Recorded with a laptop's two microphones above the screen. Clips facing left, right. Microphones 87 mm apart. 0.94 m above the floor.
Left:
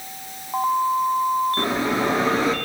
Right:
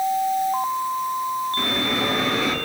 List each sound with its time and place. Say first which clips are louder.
1.6 s a bell: left 2 dB; 30° left (ahead or behind), 0.7 m